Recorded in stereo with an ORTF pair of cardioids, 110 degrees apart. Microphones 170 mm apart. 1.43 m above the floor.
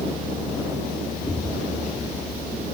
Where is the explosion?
10° left.